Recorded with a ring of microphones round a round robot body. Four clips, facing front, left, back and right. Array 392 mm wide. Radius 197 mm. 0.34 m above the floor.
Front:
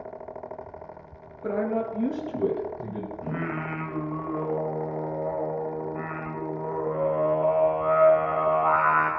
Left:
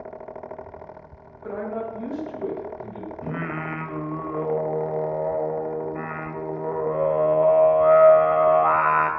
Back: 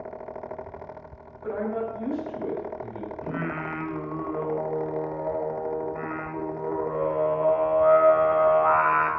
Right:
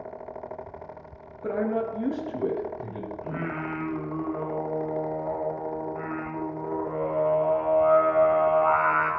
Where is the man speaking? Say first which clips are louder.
Right 3 dB, front 2 dB; 45° right, 2.5 m; by 3.1 s 10° right, 3 m.